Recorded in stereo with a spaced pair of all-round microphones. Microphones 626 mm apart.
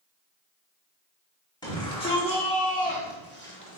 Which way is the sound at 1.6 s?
5° left (ahead or behind).